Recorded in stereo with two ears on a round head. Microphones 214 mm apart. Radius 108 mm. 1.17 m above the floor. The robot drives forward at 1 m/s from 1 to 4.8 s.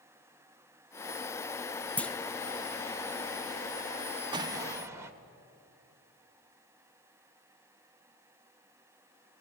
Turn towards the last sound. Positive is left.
turn(degrees=-10)  # may be behind; listen again after turning